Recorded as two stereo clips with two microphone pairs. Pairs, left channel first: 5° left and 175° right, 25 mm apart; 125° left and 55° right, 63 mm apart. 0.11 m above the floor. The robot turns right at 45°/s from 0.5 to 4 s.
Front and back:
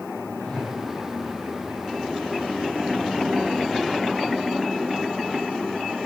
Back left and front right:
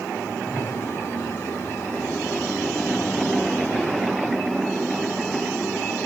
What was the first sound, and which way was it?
A whoosh, 10° left.